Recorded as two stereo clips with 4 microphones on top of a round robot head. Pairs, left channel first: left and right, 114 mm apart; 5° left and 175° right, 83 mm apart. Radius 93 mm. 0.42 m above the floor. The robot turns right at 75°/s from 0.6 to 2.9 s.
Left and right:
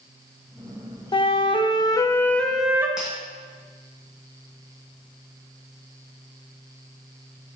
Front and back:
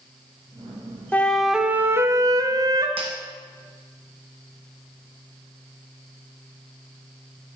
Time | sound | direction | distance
1.1 | a flute | 75° left | 0.8 m
3.0 | breaking glass | 175° right | 1.6 m